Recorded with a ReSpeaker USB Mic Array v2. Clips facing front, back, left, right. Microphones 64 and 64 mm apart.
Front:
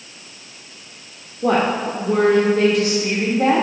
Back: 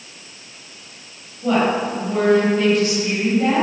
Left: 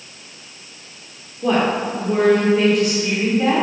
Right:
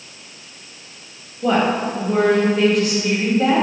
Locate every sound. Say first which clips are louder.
1.4 s a woman speaking: even, even; straight ahead, 1.3 m